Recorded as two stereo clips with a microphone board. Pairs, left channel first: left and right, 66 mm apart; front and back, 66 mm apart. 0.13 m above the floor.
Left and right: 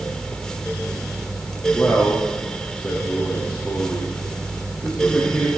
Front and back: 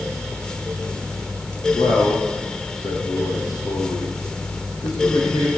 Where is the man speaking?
15° left, 5.5 m.